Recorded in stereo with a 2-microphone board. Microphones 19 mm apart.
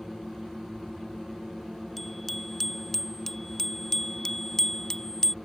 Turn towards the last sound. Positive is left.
turn(degrees=25)  # may be behind; listen again after turning